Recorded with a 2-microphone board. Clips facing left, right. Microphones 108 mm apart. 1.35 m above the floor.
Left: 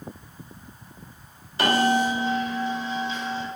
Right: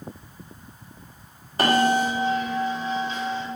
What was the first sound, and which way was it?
A bell, 45° right (ahead or behind).